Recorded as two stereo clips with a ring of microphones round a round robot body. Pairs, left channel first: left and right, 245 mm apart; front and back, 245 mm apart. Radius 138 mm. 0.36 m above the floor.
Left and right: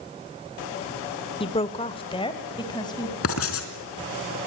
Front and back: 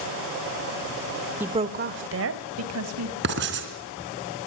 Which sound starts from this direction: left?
A woman speaking, at 1.4 s.